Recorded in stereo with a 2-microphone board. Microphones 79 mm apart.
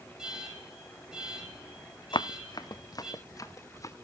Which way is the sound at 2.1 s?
80° left.